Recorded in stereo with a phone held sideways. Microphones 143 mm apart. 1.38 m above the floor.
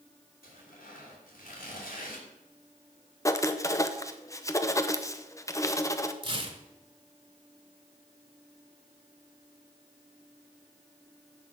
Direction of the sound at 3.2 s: 20° left (ahead or behind).